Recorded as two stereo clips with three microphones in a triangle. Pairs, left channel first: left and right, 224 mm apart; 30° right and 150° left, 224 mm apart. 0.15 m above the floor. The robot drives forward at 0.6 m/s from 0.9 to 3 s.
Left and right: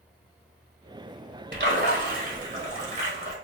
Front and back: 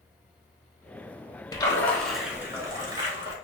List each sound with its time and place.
1.5 s a splash: 95° right, 0.9 m; by 3.4 s 145° right, 1.3 m